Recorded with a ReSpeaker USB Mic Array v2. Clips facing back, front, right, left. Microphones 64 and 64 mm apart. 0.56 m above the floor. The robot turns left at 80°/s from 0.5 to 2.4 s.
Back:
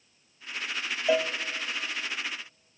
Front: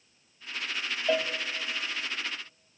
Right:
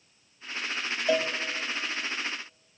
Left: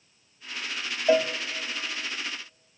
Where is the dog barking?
No dog barking in this recording.